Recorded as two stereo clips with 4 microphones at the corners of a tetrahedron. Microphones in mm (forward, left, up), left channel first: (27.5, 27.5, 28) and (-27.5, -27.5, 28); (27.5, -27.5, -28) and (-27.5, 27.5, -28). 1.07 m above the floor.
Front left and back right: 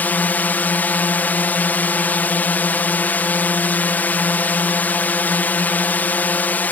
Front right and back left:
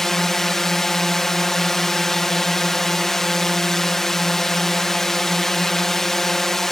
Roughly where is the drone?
Ahead left.